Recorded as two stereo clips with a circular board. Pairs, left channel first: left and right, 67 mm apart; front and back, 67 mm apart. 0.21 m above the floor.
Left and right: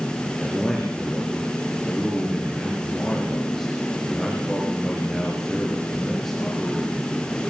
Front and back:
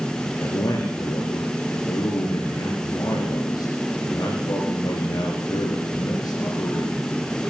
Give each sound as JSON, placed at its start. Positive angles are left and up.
{"t": 0.4, "sound": "a man speaking", "azimuth_deg": 0, "distance_m": 4.5}